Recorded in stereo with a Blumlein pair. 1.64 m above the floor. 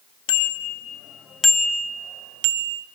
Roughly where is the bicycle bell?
Ahead left.